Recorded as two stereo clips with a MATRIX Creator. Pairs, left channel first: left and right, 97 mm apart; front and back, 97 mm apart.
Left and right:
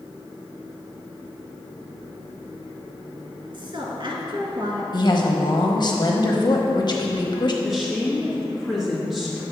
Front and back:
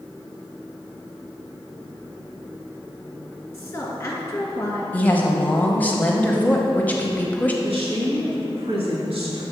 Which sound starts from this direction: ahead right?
A woman speaking, at 3.5 s.